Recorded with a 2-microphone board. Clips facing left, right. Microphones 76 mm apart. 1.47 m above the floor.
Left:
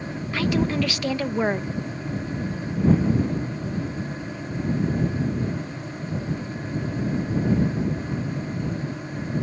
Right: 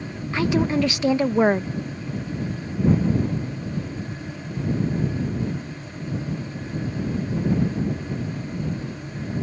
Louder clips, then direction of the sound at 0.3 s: Right 2 dB; 20° right (ahead or behind).